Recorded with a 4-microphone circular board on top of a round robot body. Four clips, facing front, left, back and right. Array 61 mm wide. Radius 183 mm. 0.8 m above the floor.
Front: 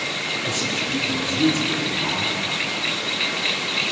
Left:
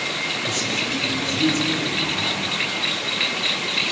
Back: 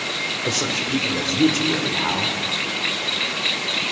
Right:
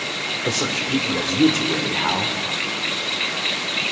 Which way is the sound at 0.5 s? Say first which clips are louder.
Right 2 dB, back 3 dB; 120° right.